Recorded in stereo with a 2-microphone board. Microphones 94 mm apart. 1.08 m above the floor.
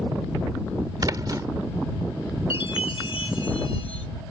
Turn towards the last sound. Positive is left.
turn(degrees=70)  # may be behind; listen again after turning